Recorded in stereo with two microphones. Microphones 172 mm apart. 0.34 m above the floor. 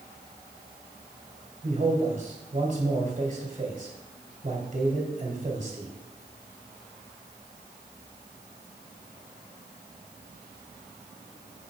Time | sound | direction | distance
1.6 | a man speaking | 45° right (ahead or behind) | 1.8 m